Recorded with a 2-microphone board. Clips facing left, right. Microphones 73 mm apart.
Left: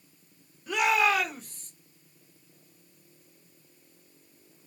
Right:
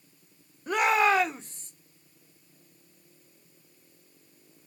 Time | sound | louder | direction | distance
0.7 | a shout | right 2 dB | 40° right (ahead or behind) | 0.9 m